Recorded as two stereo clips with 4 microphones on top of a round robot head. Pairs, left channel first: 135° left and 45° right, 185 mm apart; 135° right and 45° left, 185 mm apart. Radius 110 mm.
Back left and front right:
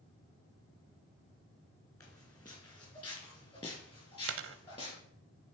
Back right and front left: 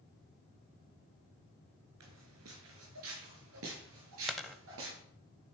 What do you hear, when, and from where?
2.0 s footsteps: 60° left, 2.5 m; by 5.0 s 70° left, 6.5 m
4.3 s a dropped coin: 45° right, 0.6 m